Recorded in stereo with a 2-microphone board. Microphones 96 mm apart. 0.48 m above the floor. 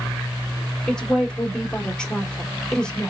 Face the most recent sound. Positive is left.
turn(degrees=5)  # may be behind; listen again after turning